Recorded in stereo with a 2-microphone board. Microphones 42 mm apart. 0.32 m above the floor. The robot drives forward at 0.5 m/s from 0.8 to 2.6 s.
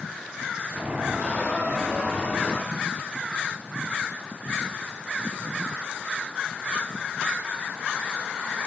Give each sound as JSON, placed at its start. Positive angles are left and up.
{"t": 1.2, "sound": "a squeak", "side_deg": 40, "distance_m": 3.0}